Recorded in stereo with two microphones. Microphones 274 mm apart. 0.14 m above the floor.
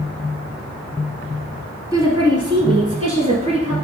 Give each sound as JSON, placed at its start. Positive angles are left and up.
{"t": 1.9, "sound": "a woman speaking", "side_deg": -10, "distance_m": 1.2}